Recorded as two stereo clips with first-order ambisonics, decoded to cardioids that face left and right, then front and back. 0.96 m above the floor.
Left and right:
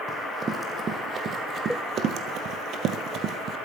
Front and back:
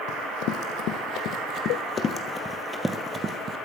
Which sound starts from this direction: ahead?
Running footsteps, at 0.1 s.